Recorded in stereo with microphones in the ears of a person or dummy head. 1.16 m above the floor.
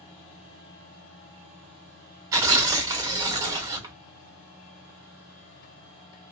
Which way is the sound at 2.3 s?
20° right (ahead or behind).